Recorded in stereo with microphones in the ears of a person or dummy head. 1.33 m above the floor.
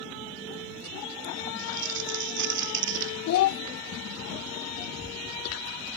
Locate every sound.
1.6 s crumpling: 60° right (ahead or behind)
3.3 s a child speaking: 65° left (ahead or behind)